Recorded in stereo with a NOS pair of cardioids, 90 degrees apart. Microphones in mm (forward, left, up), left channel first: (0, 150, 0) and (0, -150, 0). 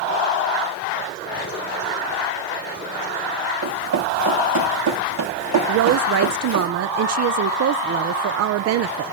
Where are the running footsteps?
65° right, 5.5 m.